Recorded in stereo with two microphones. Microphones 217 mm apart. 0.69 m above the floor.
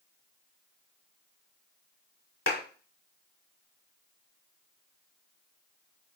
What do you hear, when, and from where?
2.5 s a clap: 70° left (ahead or behind), 1.6 m